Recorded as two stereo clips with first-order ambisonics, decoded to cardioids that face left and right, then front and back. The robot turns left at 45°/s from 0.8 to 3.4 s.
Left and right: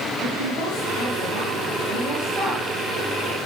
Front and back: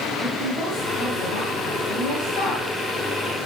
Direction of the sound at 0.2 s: 50° left.